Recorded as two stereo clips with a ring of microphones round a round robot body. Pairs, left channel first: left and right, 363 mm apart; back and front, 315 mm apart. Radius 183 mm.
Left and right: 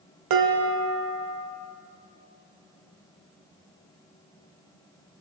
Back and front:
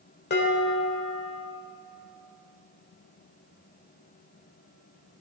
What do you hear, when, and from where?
0.3 s dishes clattering: 120° right, 1.4 m